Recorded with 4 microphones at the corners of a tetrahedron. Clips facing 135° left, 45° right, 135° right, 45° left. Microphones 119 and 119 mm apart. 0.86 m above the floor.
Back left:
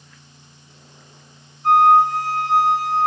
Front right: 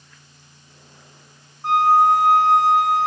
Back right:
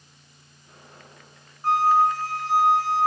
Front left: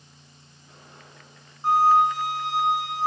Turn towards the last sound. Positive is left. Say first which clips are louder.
# back left 2 dB, front left 1 dB
turn(degrees=-30)